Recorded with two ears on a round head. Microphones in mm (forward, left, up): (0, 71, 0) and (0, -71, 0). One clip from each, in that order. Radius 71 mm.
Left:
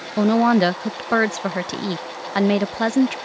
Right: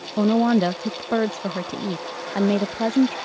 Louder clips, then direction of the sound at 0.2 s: Left 3 dB; 40° left (ahead or behind).